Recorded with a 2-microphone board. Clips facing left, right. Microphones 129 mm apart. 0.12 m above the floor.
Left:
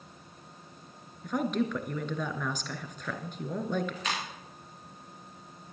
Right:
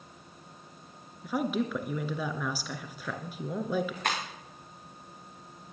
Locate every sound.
1.2 s a woman speaking: 5° right (ahead or behind), 1.3 m
4.0 s breaking glass: 50° right (ahead or behind), 4 m